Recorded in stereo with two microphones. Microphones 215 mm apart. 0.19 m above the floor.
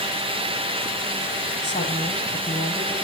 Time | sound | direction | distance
1.6 | a woman speaking | 25° left (ahead or behind) | 7.5 m